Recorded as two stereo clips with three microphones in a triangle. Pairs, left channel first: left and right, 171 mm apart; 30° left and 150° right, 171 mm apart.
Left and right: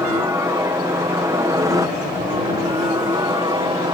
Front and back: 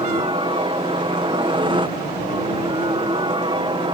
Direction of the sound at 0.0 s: 145° right.